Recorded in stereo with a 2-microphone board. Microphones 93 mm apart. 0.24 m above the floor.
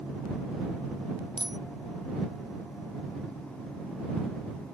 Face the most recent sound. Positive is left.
turn(degrees=-55)  # may be behind; listen again after turning